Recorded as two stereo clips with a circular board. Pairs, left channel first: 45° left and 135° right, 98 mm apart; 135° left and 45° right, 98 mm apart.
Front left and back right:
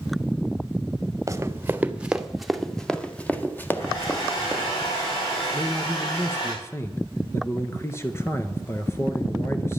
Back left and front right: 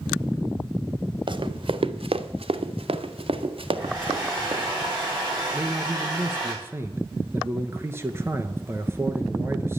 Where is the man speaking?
Straight ahead, 1.3 m.